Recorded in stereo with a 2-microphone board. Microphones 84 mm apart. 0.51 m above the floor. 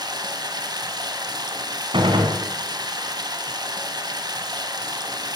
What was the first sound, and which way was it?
Running water, 55° right (ahead or behind).